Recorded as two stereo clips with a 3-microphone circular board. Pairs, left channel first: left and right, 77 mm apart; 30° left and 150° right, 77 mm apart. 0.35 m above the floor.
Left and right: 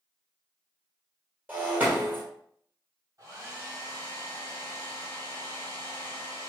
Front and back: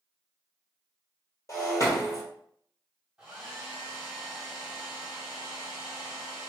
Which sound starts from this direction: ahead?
Breaking glass, at 1.5 s.